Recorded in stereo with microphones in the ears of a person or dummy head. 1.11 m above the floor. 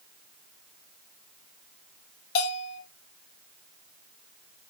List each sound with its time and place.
2.4 s a bell: 55° left (ahead or behind), 3 m